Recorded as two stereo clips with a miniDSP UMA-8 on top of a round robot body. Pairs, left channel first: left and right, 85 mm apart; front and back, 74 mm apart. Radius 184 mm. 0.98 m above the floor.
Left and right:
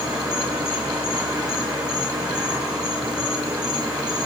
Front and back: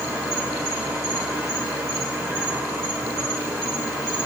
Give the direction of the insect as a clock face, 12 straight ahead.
4 o'clock.